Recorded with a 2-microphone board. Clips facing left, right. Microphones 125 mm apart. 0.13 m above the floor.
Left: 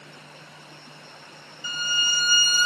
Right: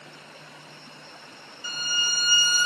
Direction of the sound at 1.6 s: 45° right (ahead or behind).